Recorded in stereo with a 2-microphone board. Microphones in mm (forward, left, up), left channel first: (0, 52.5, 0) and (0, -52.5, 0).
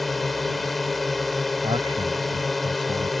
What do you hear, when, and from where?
0.0 s a drone: centre (ahead or behind)
1.6 s a man speaking: 50° right (ahead or behind)